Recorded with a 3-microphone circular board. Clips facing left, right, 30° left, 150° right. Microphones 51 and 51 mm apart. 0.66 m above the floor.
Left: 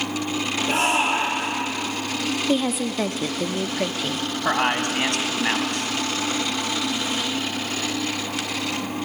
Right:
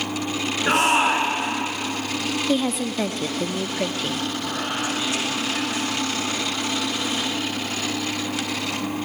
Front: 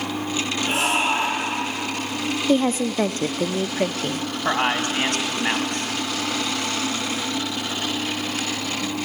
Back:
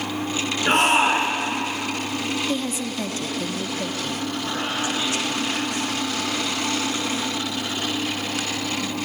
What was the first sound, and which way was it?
A shout, 115° right.